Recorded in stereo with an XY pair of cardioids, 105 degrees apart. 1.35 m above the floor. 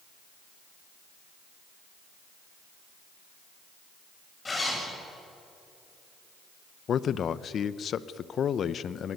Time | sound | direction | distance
4.5 | a zipper | 30° left | 8 m
6.9 | a man speaking | 55° left | 0.9 m